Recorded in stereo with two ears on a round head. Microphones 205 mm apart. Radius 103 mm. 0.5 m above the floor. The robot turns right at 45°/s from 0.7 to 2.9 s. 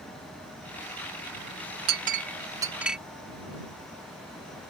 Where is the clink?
45° right (ahead or behind); by 3.0 s 5° right (ahead or behind).